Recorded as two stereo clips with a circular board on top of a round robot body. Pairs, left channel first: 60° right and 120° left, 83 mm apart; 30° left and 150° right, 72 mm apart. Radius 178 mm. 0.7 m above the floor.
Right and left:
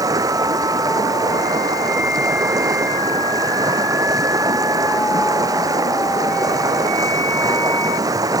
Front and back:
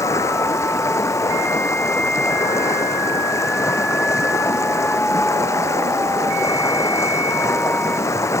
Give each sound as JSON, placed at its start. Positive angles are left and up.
{"t": 0.0, "sound": "running water", "azimuth_deg": 75}